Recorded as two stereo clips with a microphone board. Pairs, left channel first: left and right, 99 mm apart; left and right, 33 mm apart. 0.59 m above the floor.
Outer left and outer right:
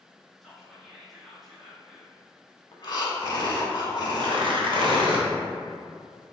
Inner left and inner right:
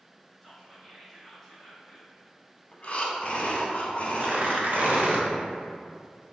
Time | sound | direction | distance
0.4 | whispering | centre (ahead or behind) | 0.6 m
2.7 | breathing | 50° left (ahead or behind) | 0.6 m
4.2 | tearing paper | 60° right (ahead or behind) | 0.6 m